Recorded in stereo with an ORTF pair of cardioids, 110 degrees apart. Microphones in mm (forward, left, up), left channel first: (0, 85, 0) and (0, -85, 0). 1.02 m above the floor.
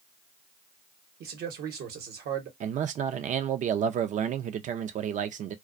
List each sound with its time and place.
1.2 s a man speaking: 70° right, 1.1 m
2.6 s a man speaking: 50° right, 0.5 m